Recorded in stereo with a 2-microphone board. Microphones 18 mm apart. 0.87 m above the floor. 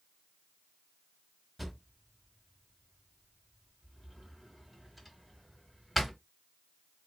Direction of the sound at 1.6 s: Centre (ahead or behind).